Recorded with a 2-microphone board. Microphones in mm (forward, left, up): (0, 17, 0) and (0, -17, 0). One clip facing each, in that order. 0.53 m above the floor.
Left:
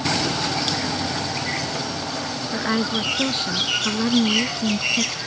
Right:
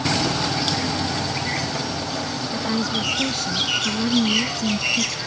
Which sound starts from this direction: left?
A woman speaking, at 2.5 s.